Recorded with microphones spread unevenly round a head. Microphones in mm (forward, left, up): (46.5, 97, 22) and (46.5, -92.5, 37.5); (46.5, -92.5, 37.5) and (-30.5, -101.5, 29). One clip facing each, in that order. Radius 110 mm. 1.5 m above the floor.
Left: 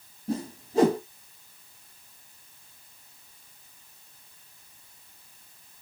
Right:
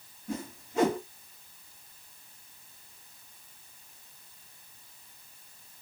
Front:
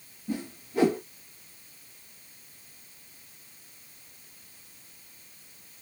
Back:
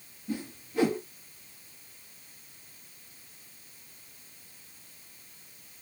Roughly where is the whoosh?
Ahead left.